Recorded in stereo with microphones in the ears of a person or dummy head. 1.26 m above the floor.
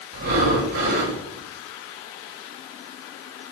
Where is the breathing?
75° right (ahead or behind), 6.5 m.